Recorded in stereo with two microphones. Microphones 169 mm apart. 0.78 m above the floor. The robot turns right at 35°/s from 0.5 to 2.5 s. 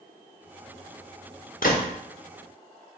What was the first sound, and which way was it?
A gunshot, 65° left (ahead or behind).